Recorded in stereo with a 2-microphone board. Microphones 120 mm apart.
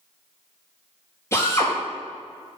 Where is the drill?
20° left (ahead or behind), 4 m.